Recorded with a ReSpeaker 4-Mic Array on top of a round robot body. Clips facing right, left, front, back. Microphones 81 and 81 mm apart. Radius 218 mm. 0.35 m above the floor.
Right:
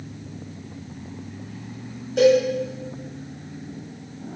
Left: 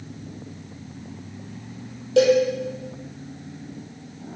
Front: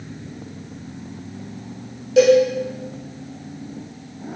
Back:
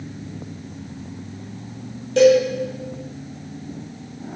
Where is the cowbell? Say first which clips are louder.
Even, front 1 dB; 85° left, 3 m.